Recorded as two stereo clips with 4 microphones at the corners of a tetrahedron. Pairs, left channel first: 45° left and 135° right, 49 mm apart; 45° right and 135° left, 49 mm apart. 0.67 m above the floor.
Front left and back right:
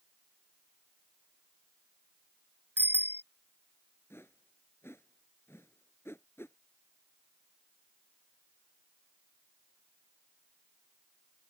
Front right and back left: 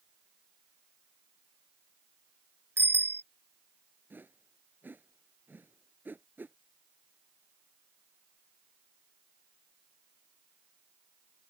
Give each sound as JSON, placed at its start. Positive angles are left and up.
{"t": 2.8, "sound": "a bicycle bell", "azimuth_deg": 175}
{"t": 4.1, "sound": "a whoosh", "azimuth_deg": 85}